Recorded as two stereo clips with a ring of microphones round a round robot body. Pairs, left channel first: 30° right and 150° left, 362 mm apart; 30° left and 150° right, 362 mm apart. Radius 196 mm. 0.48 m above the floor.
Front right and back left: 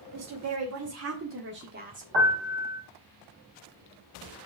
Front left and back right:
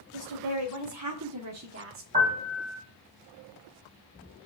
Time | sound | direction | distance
0.1 | a woman speaking | 175° right | 2.5 m
2.1 | a piano | 145° left | 5.5 m